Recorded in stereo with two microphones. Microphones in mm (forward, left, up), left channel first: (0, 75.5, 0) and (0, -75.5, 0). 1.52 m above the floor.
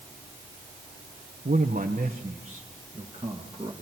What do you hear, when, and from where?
1.4 s a man speaking: 70° right (ahead or behind), 1.4 m; by 3.7 s 25° right (ahead or behind), 3 m